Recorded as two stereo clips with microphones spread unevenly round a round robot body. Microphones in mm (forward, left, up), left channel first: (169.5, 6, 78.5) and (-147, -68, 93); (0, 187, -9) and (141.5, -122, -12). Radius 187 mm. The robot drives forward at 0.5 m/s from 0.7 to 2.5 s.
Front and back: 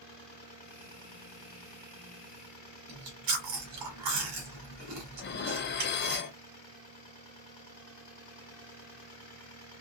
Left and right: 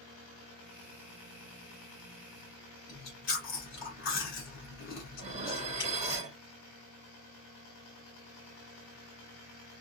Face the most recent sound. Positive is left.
turn(degrees=-10)